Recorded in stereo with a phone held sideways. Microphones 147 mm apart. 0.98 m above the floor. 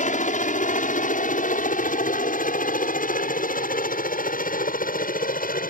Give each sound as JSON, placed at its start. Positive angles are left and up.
{"t": 0.0, "sound": "a helicopter", "side_deg": 60}